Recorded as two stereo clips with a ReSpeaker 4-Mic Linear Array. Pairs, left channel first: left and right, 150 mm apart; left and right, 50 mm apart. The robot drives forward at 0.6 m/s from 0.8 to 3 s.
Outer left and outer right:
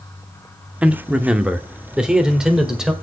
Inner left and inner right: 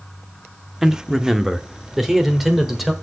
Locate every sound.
0.8 s a man speaking: 10° right (ahead or behind), 0.7 m; by 2.9 s 5° right (ahead or behind), 1.6 m